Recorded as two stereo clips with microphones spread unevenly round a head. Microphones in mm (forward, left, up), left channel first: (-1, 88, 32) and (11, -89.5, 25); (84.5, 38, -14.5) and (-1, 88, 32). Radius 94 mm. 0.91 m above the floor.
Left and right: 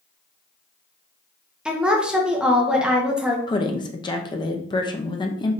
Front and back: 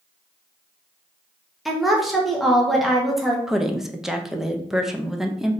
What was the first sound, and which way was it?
A woman speaking, 10° right.